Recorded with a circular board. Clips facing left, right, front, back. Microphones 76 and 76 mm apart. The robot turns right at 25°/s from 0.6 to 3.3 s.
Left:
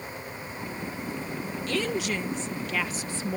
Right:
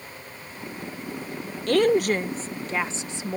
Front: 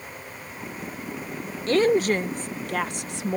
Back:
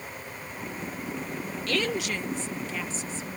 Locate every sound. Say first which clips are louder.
1.7 s a woman speaking: right 10 dB, front 10 dB; 60° right; by 3.4 s 15° right